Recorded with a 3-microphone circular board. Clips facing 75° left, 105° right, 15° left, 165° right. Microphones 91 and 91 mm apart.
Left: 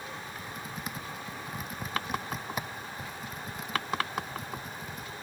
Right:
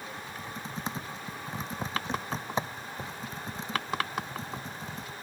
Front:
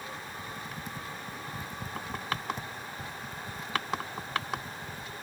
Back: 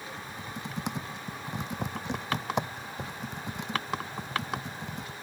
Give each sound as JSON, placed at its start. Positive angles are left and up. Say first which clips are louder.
{"t": 0.2, "sound": "typing on a keyboard", "louder": "right 1 dB, back 1 dB", "azimuth_deg": -165}